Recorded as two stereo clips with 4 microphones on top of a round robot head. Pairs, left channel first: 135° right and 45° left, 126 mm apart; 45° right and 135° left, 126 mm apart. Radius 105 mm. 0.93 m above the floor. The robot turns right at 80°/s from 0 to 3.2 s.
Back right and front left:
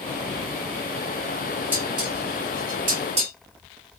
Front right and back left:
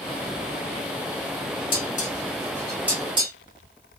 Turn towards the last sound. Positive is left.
turn(degrees=85)